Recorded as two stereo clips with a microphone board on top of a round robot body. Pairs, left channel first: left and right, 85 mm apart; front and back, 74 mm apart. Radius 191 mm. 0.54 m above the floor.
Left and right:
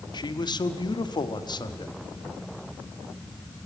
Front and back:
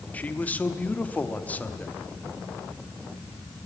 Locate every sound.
0.1 s a man speaking: 65° left, 1.4 m